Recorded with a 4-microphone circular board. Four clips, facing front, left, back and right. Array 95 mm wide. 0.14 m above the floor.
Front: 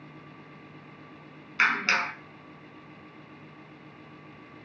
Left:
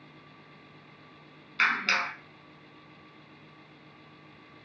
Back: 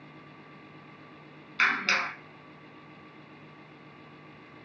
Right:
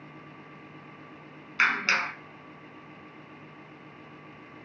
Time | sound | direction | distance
1.6 | a clap | 50° right | 0.8 m